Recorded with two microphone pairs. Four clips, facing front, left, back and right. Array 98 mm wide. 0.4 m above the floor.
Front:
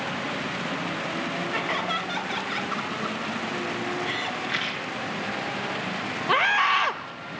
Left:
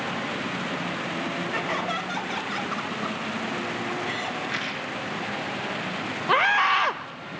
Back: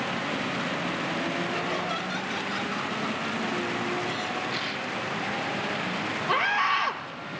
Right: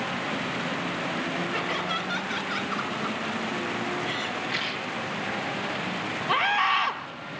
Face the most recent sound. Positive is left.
turn(degrees=65)